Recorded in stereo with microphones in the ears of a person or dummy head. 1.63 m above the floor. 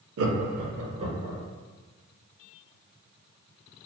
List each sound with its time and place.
0.2 s laughter: 80° right, 0.5 m; by 1.4 s 20° right (ahead or behind), 0.9 m